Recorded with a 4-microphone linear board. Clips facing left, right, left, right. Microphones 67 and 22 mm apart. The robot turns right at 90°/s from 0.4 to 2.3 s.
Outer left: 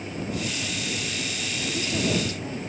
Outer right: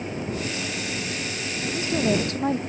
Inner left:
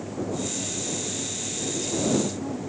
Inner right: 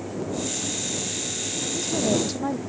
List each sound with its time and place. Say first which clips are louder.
1.6 s a woman speaking: outer right 4 dB, inner right 1 dB; straight behind; by 2.6 s 120° right